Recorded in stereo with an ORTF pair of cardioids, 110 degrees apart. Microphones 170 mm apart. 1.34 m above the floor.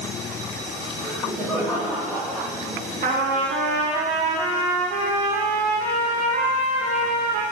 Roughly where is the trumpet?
Ahead right.